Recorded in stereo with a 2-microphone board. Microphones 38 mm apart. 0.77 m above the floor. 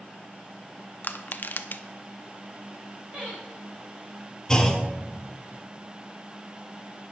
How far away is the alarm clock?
No alarm clock in this recording.